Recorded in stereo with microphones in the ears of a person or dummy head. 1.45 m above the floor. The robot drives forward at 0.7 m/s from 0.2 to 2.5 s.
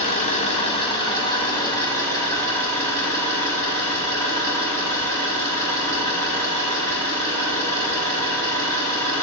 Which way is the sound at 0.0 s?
40° left (ahead or behind).